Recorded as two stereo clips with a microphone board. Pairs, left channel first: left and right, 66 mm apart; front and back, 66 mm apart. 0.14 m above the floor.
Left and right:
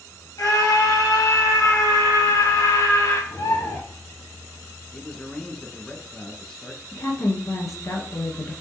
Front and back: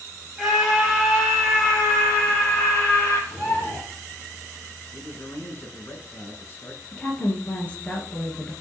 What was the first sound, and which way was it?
A scream, 95° left.